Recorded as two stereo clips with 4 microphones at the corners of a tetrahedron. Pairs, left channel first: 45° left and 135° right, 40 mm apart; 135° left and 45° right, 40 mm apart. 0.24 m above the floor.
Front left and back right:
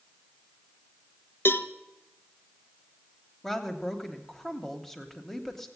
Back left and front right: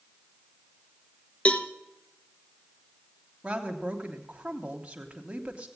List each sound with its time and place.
1.4 s a cowbell: 75° left, 0.7 m
3.4 s a woman speaking: 30° right, 1.0 m